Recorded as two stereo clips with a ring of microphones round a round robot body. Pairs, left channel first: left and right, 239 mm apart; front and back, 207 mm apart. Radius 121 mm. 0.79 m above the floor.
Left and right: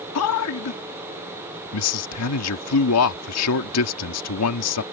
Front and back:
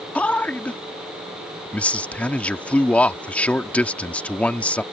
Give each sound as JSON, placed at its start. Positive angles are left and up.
{"t": 0.1, "sound": "a man speaking", "azimuth_deg": 85}